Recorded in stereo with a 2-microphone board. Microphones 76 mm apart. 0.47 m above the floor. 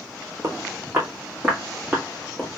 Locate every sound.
0.4 s footsteps: 40° right (ahead or behind), 1.6 m; by 2.5 s centre (ahead or behind), 2.0 m